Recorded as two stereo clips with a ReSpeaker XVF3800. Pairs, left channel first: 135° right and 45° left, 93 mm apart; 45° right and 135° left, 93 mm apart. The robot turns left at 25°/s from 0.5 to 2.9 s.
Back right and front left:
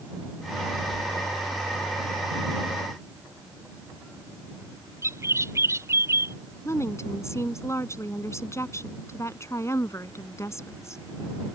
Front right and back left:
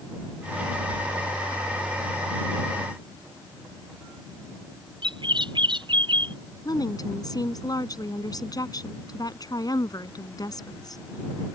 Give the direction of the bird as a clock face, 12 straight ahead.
9 o'clock.